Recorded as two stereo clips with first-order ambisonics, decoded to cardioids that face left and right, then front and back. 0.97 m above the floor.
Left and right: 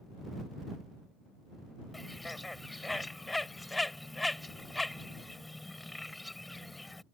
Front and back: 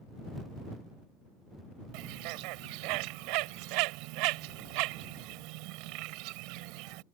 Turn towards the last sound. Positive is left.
turn(degrees=175)